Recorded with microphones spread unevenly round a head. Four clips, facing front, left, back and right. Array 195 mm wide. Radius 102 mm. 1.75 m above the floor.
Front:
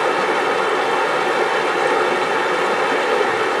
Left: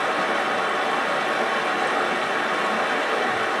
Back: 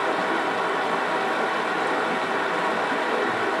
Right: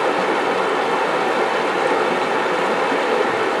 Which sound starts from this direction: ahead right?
Running water, at 0.0 s.